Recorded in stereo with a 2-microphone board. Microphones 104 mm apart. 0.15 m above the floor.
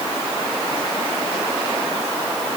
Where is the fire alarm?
I don't hear a fire alarm.